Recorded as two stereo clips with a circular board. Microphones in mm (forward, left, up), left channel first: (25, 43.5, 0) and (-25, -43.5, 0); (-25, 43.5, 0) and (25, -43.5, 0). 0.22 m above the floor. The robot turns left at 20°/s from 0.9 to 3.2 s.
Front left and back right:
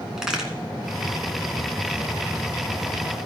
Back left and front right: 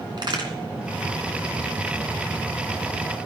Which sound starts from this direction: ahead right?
A crack, at 0.2 s.